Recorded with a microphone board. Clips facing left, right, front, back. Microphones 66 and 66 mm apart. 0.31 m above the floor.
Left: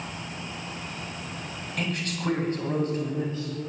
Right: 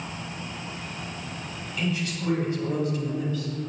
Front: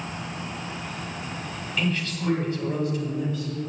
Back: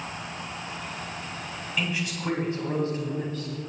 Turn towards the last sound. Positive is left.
turn(degrees=145)